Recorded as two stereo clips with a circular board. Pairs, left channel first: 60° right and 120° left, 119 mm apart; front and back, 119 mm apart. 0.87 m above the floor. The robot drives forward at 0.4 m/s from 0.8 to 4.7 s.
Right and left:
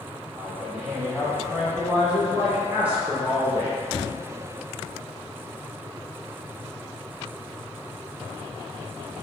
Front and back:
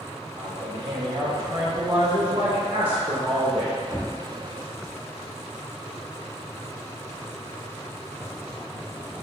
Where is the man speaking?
155° right, 1.8 m; by 3.8 s 165° right, 3 m.